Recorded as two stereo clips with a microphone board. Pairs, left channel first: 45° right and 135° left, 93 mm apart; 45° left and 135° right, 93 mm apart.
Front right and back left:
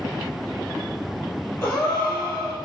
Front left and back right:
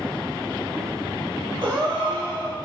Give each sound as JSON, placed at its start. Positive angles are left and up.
{"t": 1.6, "sound": "a gasp", "azimuth_deg": -105, "distance_m": 1.3}